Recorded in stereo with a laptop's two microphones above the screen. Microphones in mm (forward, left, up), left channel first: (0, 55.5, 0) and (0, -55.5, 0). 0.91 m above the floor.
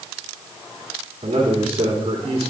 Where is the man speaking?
65° right (ahead or behind), 1.8 m.